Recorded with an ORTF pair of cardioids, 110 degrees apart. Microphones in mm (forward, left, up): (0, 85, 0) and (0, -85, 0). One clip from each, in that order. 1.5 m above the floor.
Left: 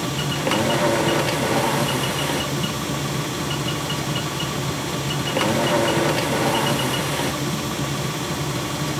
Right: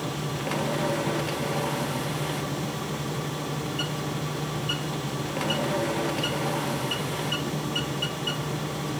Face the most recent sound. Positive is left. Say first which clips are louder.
# left 7 dB
turn(degrees=50)